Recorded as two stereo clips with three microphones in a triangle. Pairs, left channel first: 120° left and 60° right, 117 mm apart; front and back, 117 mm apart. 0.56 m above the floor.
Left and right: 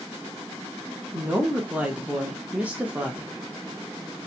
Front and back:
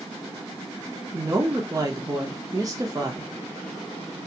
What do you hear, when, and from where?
1.1 s a woman speaking: 135° right, 0.8 m